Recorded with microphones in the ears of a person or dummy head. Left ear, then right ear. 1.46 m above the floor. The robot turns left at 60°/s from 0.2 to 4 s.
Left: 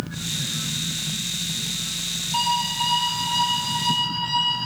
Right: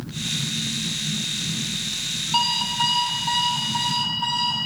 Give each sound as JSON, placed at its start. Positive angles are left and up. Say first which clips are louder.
{"t": 2.3, "sound": "an alarm clock", "louder": "right 1 dB", "azimuth_deg": -25, "distance_m": 6.0}